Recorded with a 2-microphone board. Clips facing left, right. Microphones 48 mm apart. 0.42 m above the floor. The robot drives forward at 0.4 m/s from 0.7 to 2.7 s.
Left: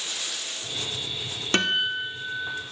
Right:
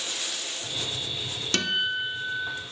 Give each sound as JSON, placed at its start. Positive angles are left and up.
{"t": 1.5, "sound": "a guitar", "side_deg": 30, "distance_m": 1.1}